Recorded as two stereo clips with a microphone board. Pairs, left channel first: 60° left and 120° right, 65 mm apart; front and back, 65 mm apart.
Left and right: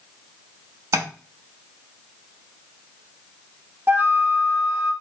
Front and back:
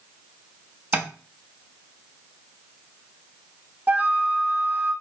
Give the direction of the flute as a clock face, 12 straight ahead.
5 o'clock.